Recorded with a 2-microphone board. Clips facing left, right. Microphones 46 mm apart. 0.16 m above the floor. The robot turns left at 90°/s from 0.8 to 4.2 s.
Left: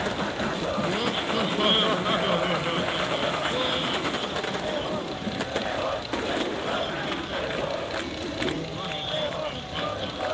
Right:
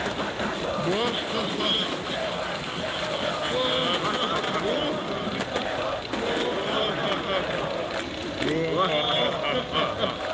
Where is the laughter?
130° right; by 10.2 s 75° right.